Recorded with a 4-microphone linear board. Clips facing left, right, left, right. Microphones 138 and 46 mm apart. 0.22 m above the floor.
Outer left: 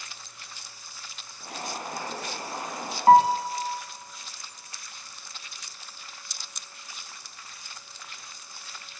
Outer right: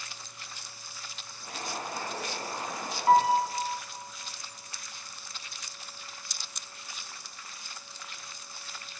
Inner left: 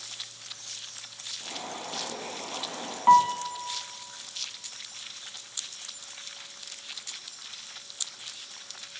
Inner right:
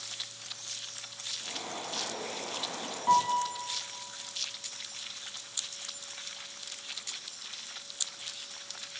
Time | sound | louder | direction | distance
1.4 | boiling | outer left 2 dB, inner left 2 dB | 65° left (ahead or behind) | 6 m
3.1 | a piano | outer left 5 dB, inner left 6 dB | 55° left (ahead or behind) | 0.8 m